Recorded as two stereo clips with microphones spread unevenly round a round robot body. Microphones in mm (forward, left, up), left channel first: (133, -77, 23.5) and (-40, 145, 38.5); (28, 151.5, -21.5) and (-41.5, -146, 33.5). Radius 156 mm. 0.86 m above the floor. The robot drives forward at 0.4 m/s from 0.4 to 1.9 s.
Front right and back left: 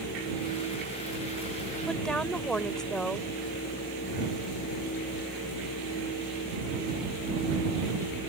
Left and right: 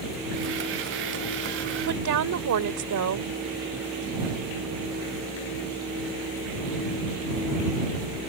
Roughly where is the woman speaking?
Behind right.